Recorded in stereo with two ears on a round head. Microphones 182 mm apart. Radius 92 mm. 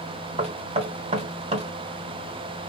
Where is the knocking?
35° right (ahead or behind), 1.2 m.